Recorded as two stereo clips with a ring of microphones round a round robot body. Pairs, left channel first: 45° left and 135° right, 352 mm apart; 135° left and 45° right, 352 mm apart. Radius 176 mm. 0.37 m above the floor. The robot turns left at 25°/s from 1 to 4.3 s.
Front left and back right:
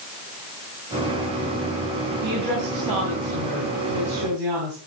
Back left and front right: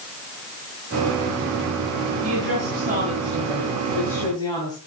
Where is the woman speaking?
95° right, 3 m; by 4.8 s 145° right, 3 m.